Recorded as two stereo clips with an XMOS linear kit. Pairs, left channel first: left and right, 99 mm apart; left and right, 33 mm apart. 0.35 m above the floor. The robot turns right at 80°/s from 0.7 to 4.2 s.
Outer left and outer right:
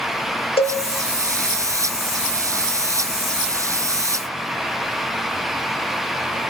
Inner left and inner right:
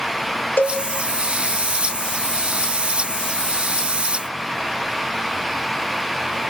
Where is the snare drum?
I don't hear a snare drum.